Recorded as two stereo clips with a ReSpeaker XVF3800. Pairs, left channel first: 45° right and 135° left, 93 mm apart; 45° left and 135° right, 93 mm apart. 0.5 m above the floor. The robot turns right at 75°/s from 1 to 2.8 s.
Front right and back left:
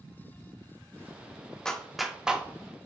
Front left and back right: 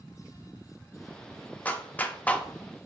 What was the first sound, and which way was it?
A clap, 20° left.